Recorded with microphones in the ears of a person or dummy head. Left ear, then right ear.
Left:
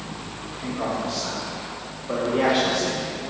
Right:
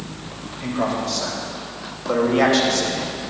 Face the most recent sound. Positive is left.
turn(degrees=-60)  # may be behind; listen again after turning